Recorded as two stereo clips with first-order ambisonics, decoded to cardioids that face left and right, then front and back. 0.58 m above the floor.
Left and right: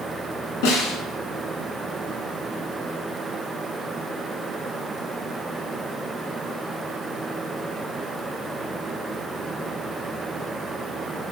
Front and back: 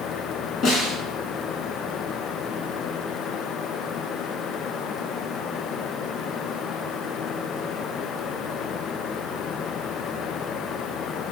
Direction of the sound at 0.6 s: 70° left.